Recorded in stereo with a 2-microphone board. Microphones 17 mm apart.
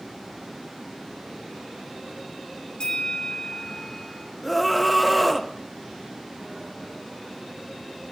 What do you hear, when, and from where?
2.8 s a bell: 55° left (ahead or behind), 1.7 m
4.4 s a scream: centre (ahead or behind), 1.1 m